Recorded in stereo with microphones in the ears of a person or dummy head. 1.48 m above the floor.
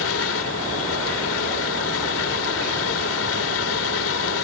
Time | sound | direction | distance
0.0 | a fan | 85° left | ?